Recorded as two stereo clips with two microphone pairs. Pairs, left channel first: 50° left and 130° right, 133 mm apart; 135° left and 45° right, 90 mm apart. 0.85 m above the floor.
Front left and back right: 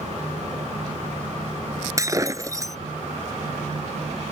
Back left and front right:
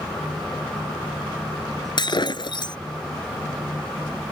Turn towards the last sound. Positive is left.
turn(degrees=165)